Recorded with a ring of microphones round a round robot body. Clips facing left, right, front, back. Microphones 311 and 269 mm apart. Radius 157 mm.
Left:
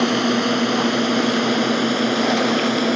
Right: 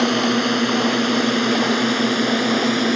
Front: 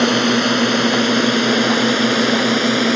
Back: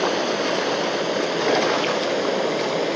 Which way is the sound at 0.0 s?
Straight ahead.